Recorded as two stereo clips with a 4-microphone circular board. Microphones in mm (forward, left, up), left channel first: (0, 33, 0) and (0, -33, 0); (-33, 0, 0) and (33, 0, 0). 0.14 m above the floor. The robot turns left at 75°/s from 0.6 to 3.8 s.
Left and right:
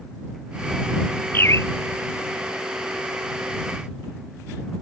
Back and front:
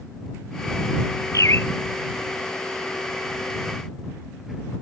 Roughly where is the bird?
Behind left.